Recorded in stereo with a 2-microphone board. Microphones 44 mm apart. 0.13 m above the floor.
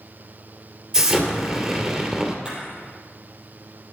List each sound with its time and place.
0.9 s an explosion: 20° right (ahead or behind), 2.0 m
2.5 s a camera shutter: 25° right (ahead or behind), 4 m